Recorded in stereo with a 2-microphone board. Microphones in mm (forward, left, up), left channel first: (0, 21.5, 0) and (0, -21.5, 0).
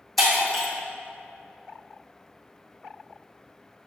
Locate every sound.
0.2 s breaking glass: centre (ahead or behind), 1.7 m